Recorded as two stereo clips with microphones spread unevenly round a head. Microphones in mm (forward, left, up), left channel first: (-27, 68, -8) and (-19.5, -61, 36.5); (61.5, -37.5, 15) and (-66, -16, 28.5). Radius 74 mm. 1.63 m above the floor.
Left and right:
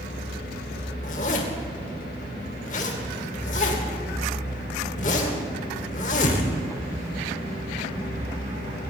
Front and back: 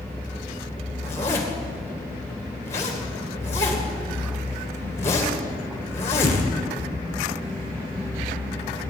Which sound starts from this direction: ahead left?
A zipper, at 1.0 s.